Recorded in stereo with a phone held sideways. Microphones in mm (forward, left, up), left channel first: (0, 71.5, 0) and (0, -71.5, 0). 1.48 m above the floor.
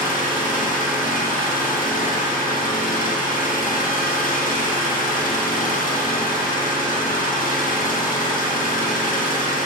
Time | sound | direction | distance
0.0 | an engine running | 90° left | 1.7 m